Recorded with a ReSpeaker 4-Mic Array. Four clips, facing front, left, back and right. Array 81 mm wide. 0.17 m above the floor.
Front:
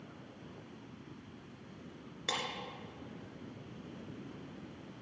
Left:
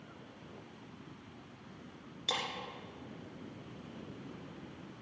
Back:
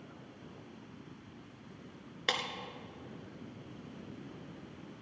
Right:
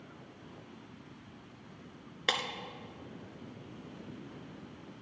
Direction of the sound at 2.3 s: 125° right.